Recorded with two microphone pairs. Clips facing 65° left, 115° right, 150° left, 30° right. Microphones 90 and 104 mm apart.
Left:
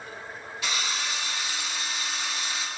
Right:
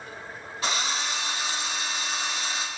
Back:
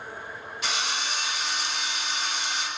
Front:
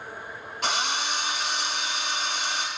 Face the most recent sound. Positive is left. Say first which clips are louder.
# right 3 dB, front 3 dB
turn(degrees=-65)